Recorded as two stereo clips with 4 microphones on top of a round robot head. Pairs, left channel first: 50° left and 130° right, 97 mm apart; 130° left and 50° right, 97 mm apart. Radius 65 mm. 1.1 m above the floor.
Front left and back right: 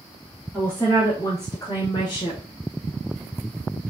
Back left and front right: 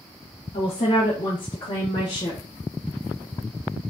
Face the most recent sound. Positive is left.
turn(degrees=85)